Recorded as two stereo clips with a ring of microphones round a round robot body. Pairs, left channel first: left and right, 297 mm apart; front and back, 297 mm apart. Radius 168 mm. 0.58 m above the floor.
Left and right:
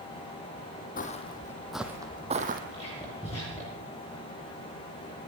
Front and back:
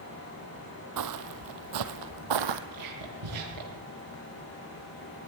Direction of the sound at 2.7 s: 170° left.